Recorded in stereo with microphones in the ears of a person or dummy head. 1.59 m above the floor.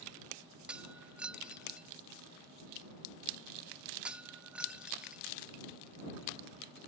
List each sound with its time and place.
0.7 s breaking glass: 5° right (ahead or behind)